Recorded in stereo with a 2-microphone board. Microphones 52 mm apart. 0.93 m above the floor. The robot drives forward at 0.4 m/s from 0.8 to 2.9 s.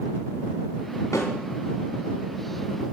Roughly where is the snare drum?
Left.